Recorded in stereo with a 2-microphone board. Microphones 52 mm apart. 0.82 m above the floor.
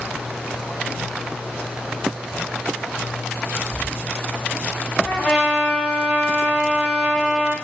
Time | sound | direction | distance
3.7 | whispering | 15° left (ahead or behind) | 1.8 m
5.0 | a trumpet | 25° left (ahead or behind) | 1.8 m